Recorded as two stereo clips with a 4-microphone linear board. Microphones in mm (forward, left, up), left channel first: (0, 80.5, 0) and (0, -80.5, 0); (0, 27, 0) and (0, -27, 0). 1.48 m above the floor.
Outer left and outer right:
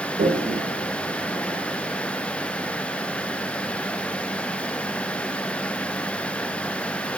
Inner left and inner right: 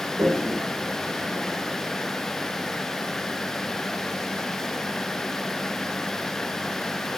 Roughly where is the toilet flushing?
Right.